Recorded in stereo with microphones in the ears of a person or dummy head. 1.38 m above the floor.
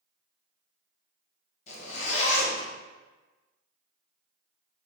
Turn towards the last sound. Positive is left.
turn(degrees=40)  # may be behind; listen again after turning